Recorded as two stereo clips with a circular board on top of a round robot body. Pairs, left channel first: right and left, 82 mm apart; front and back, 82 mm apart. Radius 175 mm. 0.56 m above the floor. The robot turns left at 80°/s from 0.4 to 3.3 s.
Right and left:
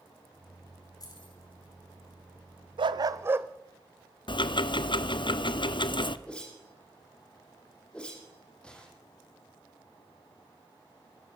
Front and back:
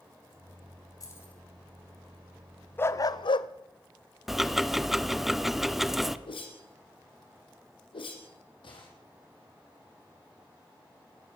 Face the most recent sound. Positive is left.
turn(degrees=-10)